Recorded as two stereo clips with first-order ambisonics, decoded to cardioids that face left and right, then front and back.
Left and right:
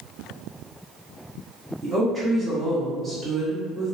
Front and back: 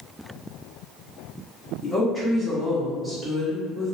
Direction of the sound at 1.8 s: 40° right.